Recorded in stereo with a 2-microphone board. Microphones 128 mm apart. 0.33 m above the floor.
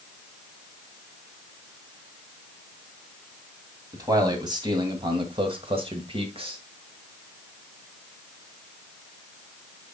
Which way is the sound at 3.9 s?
30° right (ahead or behind).